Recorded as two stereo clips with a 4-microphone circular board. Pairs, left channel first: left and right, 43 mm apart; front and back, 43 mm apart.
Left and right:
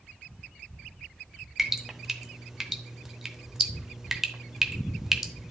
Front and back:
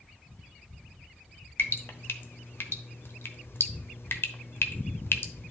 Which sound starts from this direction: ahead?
Dripping, at 1.6 s.